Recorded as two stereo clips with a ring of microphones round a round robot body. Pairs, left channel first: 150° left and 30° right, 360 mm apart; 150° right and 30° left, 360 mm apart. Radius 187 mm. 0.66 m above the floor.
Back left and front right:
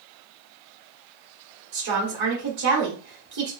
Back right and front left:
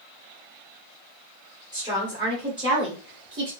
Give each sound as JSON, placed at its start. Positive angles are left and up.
{"t": 1.7, "sound": "a woman speaking", "azimuth_deg": -45, "distance_m": 1.6}